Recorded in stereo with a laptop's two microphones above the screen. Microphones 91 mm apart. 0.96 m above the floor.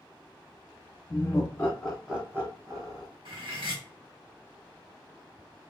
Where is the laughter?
35° left (ahead or behind), 0.8 m; by 3.1 s 45° right (ahead or behind), 0.9 m.